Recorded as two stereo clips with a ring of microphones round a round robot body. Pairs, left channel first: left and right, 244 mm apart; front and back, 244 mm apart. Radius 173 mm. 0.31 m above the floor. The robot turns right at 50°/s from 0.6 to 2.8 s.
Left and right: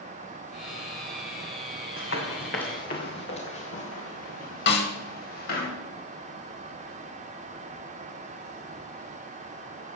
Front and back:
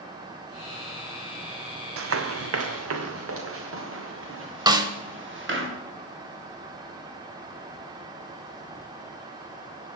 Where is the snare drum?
115° left, 1.4 m.